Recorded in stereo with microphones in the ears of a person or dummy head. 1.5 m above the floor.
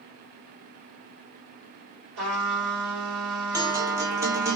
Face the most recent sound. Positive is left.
turn(degrees=-15)  # may be behind; listen again after turning